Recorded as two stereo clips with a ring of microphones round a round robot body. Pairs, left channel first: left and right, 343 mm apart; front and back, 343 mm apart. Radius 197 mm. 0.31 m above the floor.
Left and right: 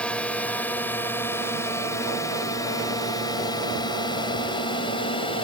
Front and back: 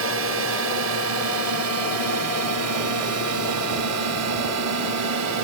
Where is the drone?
175° left; by 5.5 s 160° left.